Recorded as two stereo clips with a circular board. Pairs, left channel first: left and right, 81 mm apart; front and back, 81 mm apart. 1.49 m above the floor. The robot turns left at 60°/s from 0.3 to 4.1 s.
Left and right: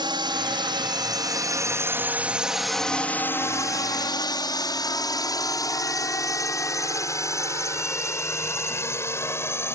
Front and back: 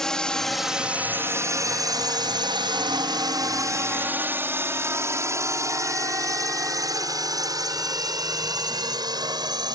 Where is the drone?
85° right; by 9.8 s 150° left.